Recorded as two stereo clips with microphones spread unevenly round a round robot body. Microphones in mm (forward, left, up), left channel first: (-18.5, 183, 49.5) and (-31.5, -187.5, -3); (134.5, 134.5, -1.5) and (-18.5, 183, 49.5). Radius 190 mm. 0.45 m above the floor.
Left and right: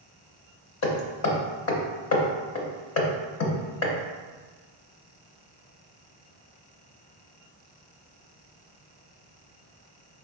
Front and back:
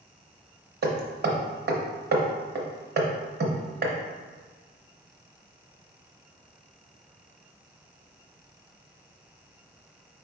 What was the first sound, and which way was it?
Hammering, 140° left.